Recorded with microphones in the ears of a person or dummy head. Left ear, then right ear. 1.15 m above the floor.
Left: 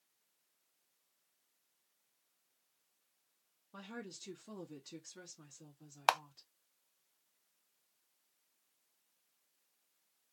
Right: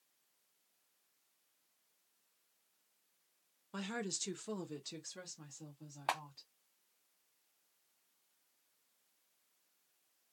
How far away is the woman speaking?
About 0.7 m.